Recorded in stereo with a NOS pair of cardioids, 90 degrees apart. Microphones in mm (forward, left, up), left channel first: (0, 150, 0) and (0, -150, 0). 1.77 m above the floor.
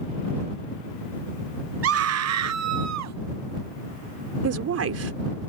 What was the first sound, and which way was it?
A scream, 50° right.